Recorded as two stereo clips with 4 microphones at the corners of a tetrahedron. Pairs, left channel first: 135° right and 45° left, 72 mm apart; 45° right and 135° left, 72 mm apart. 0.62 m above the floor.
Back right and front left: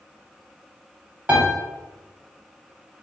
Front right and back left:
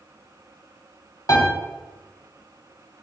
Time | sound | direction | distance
1.3 | a piano | 20° right | 1.1 m